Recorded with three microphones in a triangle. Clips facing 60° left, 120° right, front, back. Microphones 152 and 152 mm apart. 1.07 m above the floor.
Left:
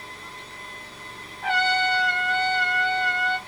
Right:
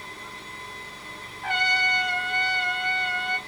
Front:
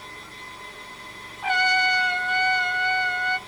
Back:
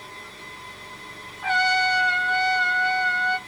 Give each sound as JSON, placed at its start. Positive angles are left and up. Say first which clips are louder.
{"t": 1.4, "sound": "a trumpet", "louder": "left 5 dB, back 1 dB", "azimuth_deg": 75, "distance_m": 1.0}